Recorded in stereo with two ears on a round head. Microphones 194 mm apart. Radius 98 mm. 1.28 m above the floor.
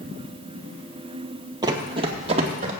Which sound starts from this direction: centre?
Running footsteps, at 1.6 s.